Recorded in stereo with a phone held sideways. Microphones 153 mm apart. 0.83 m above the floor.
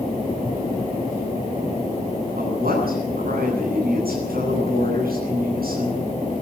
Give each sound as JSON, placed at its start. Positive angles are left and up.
{"t": 2.4, "sound": "a woman speaking", "side_deg": -75, "distance_m": 10.0}